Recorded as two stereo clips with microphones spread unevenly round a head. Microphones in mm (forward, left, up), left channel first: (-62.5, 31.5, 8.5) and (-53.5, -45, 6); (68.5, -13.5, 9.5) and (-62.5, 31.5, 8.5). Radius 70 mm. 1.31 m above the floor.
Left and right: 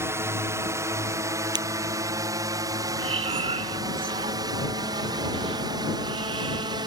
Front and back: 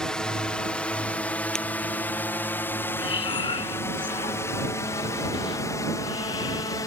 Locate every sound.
0.0 s a drone: 100° right; by 6.9 s 85° right
1.6 s breaking glass: 105° right
3.0 s breathing: 80° right